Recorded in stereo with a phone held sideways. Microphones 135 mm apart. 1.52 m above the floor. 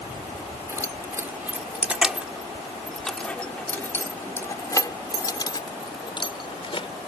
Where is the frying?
I don't hear frying.